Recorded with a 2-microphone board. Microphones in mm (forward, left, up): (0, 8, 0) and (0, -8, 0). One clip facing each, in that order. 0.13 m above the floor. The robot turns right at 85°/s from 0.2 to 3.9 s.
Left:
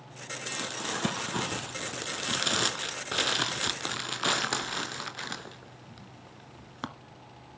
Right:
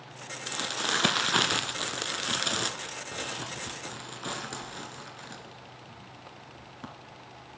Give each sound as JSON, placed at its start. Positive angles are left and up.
{"t": 0.5, "sound": "crumpling", "side_deg": -15, "distance_m": 0.6}